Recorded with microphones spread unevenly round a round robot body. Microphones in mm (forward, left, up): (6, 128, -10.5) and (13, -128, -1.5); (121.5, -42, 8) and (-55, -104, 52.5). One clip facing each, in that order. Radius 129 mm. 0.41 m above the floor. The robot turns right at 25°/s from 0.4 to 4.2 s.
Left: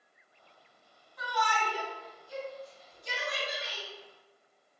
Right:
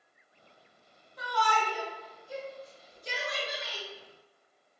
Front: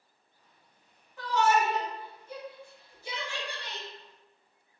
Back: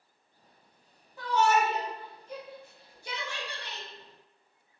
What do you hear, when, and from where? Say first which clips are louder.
1.2 s a shout: right 3 dB, even; 70° right, 1.6 m; by 3.9 s 5° right, 1.6 m